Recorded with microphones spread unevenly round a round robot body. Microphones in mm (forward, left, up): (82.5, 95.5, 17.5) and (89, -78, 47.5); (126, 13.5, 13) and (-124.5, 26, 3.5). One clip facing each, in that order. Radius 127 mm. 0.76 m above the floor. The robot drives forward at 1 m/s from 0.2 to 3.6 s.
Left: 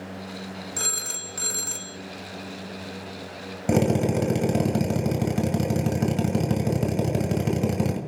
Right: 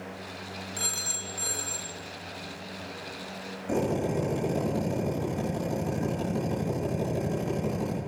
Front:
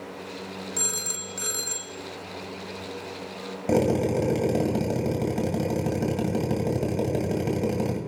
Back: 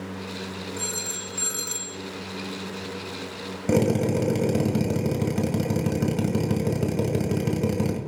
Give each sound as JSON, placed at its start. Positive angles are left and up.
{"t": 0.8, "sound": "a phone ringing", "azimuth_deg": 55, "distance_m": 1.3}
{"t": 3.7, "sound": "a drill", "azimuth_deg": 105, "distance_m": 2.5}